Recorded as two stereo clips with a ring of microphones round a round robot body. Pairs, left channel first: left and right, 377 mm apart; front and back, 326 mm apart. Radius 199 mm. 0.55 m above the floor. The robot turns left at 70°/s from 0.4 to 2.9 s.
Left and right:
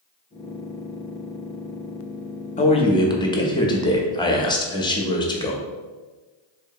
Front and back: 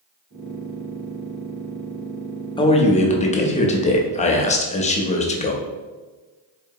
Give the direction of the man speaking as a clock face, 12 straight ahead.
10 o'clock.